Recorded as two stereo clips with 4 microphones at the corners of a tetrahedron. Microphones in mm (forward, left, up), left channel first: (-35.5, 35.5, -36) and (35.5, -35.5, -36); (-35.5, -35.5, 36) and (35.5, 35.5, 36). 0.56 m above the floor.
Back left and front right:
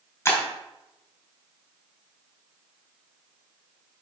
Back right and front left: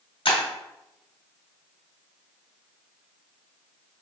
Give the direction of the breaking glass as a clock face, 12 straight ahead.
5 o'clock.